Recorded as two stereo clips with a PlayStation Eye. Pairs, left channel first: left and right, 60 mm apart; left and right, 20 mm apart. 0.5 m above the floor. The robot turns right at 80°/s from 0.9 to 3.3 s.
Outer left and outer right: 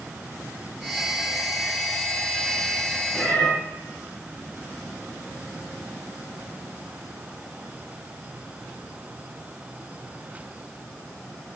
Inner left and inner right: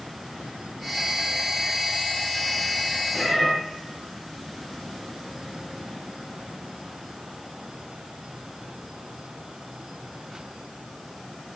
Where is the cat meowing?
20° left (ahead or behind), 2.5 m; by 3.5 s 10° left (ahead or behind), 2.5 m.